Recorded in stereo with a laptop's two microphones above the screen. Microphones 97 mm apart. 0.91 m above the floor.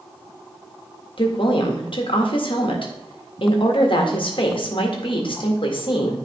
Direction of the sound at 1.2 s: 60° left (ahead or behind).